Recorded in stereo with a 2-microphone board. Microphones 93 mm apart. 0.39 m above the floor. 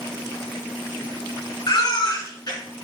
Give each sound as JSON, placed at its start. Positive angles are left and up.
{"t": 1.7, "sound": "a baby crying", "side_deg": 45, "distance_m": 3.5}